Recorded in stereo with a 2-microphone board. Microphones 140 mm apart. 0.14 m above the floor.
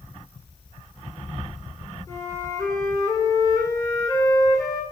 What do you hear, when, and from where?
2.1 s a flute: 20° left (ahead or behind), 1.4 m